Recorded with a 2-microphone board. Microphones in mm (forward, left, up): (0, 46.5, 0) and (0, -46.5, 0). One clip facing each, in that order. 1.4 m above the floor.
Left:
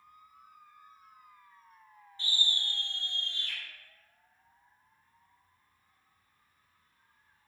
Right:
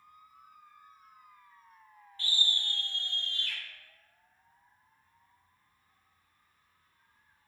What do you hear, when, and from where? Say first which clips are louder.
2.2 s a scream: even; 20° left (ahead or behind), 1.1 m; by 3.6 s 30° left (ahead or behind), 2.0 m